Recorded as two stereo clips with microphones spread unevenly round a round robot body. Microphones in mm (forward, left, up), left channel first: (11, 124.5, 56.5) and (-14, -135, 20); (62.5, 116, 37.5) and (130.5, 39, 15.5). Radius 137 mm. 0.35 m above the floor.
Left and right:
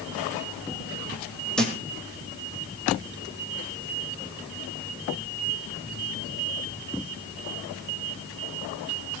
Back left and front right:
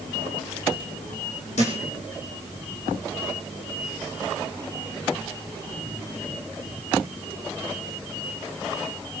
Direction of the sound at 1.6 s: 170° left.